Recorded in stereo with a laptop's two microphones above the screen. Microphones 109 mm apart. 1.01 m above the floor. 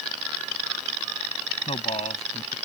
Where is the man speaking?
70° left (ahead or behind).